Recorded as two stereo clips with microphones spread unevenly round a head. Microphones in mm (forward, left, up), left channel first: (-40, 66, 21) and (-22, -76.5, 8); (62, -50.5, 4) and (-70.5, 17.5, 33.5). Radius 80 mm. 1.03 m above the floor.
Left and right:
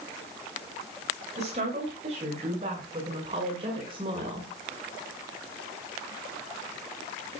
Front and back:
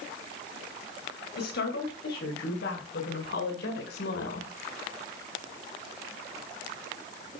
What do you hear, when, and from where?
1.4 s a woman speaking: 30° right, 6.5 m; by 4.5 s 20° right, 5 m